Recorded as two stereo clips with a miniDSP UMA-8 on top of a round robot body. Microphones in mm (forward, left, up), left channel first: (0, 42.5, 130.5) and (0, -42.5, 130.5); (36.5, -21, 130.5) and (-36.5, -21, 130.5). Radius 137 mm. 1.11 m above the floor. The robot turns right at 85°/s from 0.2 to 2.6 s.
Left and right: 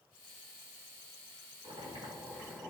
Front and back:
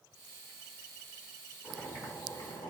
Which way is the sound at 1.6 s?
85° right.